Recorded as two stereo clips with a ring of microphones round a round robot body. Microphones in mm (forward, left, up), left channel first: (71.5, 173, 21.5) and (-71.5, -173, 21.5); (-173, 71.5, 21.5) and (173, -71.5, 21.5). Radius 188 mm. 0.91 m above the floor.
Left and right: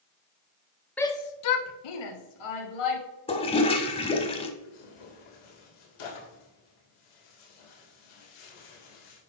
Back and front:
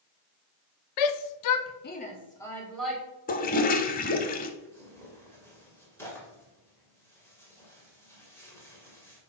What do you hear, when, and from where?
1.0 s a shout: 155° left, 0.9 m; by 3.0 s 65° left, 2.5 m
3.3 s a toilet flushing: 125° left, 0.8 m
4.6 s tearing paper: 75° left, 3 m